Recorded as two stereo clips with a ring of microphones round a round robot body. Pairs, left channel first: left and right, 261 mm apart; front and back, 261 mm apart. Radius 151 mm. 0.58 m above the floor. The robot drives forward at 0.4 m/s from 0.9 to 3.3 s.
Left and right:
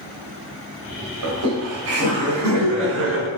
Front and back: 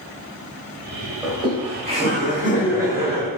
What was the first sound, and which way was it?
Laughter, 105° right.